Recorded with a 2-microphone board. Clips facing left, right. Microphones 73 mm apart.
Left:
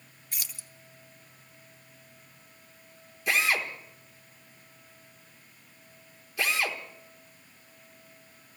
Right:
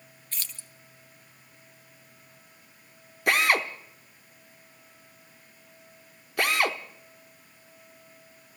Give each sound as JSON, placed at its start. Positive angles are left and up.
{"t": 0.3, "sound": "keys jangling", "side_deg": 15, "distance_m": 0.9}
{"t": 3.3, "sound": "a drill", "side_deg": -60, "distance_m": 0.9}